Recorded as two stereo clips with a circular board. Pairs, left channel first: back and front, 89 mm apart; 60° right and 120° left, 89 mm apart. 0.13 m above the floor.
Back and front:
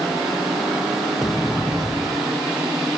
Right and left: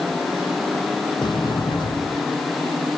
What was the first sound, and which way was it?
A sliding door, 90° right.